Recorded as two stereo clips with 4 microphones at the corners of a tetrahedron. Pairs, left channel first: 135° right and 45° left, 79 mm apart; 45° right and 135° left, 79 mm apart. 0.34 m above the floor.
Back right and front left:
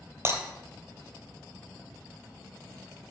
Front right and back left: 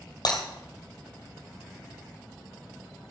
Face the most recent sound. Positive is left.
turn(degrees=-10)